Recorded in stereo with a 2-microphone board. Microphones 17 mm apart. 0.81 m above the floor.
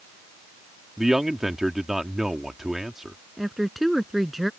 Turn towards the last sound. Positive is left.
turn(degrees=-10)  # may be behind; listen again after turning